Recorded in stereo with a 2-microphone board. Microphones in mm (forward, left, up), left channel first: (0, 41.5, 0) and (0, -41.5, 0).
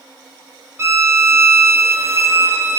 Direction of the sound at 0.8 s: 35° right (ahead or behind).